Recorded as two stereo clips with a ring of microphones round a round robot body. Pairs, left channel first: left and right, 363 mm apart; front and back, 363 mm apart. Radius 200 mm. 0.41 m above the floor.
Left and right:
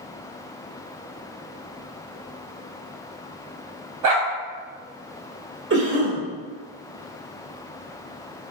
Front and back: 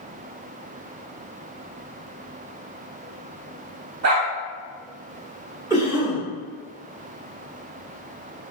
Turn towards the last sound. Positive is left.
turn(degrees=-105)